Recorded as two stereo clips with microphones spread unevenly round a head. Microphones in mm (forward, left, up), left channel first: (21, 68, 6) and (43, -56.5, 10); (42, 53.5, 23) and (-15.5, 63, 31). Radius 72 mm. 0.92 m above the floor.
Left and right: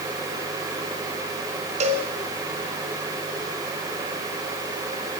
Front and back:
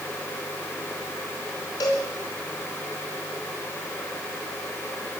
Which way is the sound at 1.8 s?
50° right.